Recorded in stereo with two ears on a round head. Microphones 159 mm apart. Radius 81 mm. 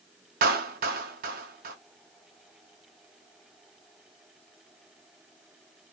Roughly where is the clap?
Right.